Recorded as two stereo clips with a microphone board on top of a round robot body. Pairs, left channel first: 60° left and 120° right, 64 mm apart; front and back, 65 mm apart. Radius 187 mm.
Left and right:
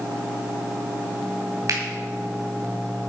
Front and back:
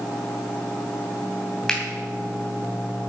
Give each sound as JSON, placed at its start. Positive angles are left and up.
{"t": 1.7, "sound": "a finger snap", "azimuth_deg": -80, "distance_m": 2.5}